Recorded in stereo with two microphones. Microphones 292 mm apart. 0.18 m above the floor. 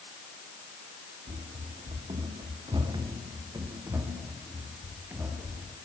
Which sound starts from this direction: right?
Running footsteps, at 1.3 s.